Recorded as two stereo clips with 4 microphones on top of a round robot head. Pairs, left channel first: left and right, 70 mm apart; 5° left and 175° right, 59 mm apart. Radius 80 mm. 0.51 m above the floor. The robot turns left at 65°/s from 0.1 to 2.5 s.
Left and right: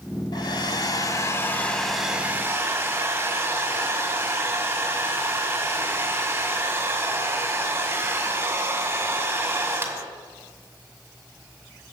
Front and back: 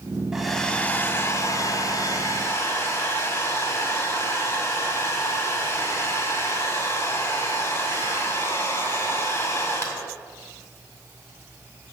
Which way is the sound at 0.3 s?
110° left.